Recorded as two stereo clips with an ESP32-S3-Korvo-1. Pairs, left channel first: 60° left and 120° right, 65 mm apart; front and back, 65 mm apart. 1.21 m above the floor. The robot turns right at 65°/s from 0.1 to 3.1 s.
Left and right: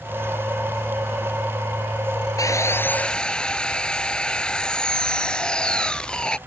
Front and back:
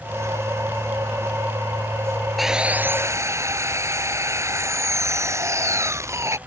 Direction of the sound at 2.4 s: 90° left.